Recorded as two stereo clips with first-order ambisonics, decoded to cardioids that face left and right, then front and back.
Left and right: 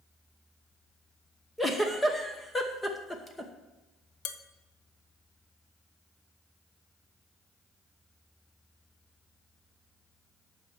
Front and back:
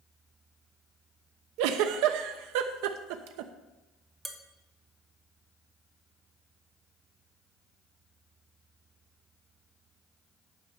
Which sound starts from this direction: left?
Dishes clattering, at 4.2 s.